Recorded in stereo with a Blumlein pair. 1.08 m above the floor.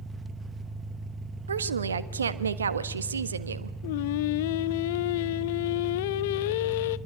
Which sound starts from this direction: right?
A woman speaking, at 1.5 s.